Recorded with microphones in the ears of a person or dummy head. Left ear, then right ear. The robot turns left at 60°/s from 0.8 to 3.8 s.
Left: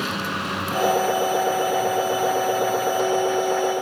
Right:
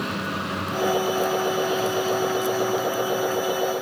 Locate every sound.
0.0 s a vehicle: 25° left (ahead or behind); by 3.8 s 5° left (ahead or behind)